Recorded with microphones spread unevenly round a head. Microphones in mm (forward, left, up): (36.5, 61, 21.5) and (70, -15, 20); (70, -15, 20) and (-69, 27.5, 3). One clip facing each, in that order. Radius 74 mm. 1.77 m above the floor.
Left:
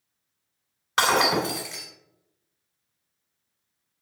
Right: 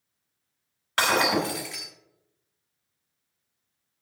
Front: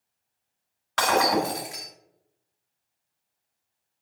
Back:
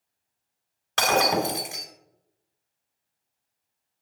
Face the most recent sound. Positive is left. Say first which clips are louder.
# left 2 dB, even
turn(degrees=145)